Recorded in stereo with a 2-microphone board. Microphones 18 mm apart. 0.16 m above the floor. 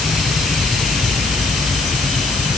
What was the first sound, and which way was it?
Only background noise.